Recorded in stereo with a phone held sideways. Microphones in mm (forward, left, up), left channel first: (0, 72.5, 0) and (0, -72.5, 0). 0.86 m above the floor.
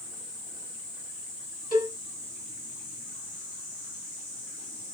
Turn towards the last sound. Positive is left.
turn(degrees=75)  # may be behind; listen again after turning